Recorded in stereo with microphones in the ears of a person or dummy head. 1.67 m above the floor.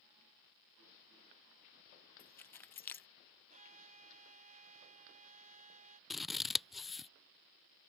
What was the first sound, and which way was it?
Keys jangling, 10° left (ahead or behind).